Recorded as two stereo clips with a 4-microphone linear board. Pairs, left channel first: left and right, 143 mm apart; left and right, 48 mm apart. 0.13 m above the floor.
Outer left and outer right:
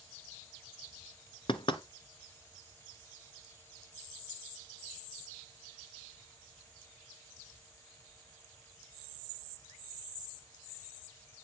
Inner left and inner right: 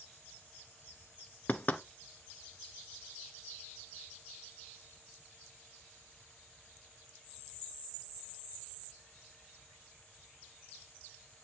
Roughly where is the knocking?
Left.